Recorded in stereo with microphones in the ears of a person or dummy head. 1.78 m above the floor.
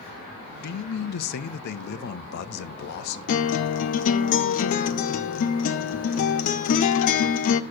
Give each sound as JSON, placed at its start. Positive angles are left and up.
{"t": 0.6, "sound": "a man speaking", "side_deg": 55, "distance_m": 0.7}
{"t": 3.3, "sound": "a guitar", "side_deg": 50, "distance_m": 0.6}